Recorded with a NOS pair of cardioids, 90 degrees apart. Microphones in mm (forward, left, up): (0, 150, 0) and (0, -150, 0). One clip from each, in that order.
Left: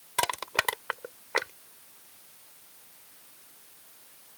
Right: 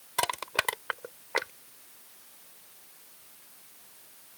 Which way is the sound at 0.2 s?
10° left.